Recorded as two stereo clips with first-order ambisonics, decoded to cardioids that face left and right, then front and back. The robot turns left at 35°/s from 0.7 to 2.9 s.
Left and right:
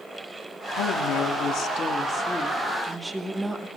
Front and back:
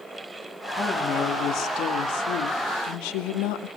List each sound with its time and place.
0.8 s a woman speaking: 70° left, 1.9 m; by 3.7 s 5° right, 1.9 m